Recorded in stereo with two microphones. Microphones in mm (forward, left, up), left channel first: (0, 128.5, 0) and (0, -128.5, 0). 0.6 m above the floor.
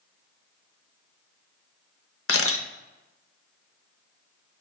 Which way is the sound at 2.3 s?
60° left (ahead or behind).